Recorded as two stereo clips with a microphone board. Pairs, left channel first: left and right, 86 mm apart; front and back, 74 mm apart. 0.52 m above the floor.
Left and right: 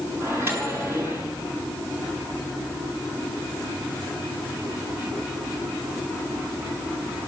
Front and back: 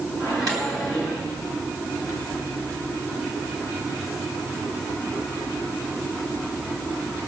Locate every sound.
0.2 s a microwave: 150° right, 5.5 m